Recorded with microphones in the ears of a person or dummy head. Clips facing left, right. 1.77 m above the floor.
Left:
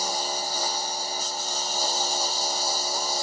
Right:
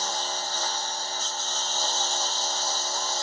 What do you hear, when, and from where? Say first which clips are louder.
0.0 s a lawn mower: left 2 dB; 10° left (ahead or behind)